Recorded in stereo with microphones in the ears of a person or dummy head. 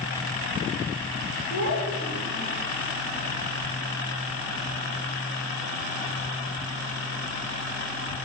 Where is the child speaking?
45° left (ahead or behind), 3.5 m; by 2.6 s 65° left (ahead or behind), 3.5 m.